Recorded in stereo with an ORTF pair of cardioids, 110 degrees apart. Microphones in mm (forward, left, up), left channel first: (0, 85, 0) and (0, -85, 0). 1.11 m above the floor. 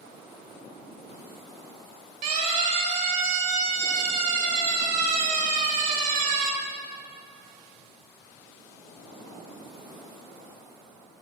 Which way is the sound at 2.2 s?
65° right.